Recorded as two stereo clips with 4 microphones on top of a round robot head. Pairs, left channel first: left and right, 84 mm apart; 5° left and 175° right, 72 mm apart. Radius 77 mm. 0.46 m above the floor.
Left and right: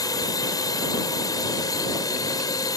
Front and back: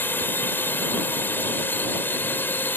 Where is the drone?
60° left.